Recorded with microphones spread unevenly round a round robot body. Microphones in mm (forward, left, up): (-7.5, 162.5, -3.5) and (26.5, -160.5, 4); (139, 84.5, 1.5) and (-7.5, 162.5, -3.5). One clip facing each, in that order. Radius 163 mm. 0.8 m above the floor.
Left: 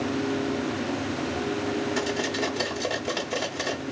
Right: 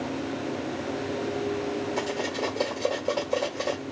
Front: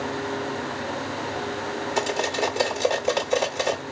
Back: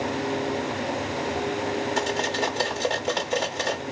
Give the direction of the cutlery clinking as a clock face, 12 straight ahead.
10 o'clock.